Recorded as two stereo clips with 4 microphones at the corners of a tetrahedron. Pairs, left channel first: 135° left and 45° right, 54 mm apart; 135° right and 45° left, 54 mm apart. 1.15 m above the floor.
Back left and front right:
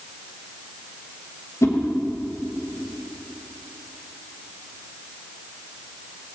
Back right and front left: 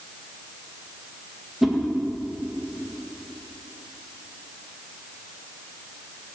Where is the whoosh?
130° left, 1.5 m.